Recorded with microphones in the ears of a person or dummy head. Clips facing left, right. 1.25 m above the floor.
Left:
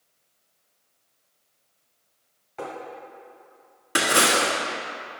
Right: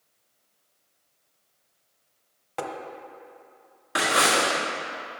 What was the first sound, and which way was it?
Tapping, 70° right (ahead or behind).